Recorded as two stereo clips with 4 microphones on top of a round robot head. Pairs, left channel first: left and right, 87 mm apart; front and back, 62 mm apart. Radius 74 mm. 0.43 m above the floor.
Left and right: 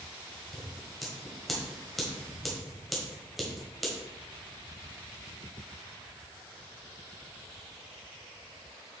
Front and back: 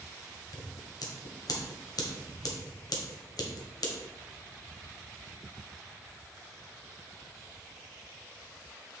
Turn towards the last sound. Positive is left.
turn(degrees=0)